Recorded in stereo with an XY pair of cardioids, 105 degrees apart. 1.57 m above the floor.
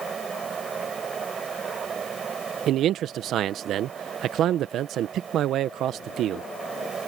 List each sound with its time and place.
0.0 s a fan: 40° right
2.7 s a man speaking: 65° right